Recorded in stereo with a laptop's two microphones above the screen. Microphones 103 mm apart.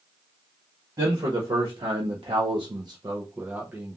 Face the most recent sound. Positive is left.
turn(degrees=-5)  # may be behind; listen again after turning